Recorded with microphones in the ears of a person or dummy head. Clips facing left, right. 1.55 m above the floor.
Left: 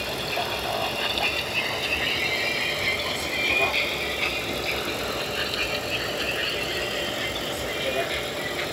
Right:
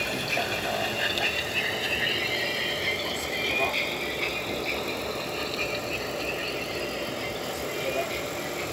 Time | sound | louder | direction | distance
0.0 | a vehicle | left 1 dB | 35° right (ahead or behind) | ?